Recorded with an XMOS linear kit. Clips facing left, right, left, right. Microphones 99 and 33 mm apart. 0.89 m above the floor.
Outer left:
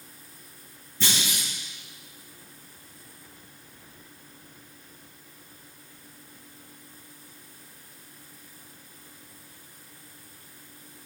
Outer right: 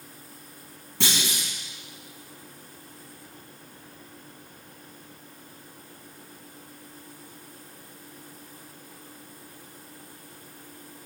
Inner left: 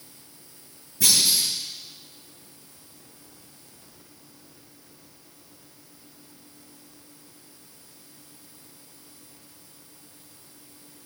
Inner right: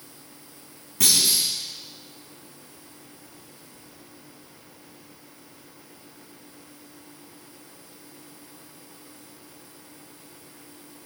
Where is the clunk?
85° right, 5 m.